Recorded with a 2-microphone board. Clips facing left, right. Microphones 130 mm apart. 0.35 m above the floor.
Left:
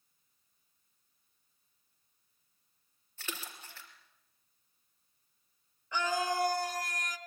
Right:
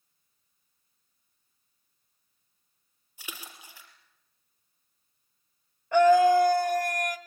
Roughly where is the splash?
Centre.